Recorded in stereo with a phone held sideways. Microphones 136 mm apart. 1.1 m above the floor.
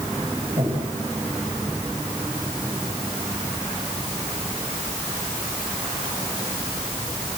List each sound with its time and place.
0.6 s breathing: 45° right (ahead or behind), 5 m